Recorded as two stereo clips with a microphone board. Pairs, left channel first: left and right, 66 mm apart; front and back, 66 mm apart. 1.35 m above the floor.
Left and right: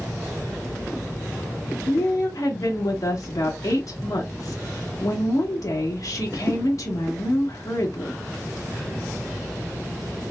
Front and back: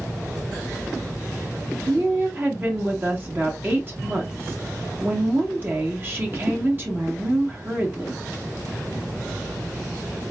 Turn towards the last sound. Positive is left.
turn(degrees=120)